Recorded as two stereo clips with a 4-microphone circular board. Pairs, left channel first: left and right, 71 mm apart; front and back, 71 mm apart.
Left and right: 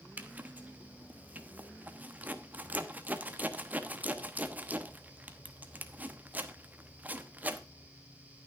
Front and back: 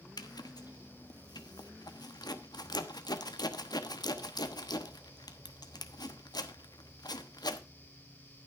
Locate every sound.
0.2 s a zipper: 25° right, 1.0 m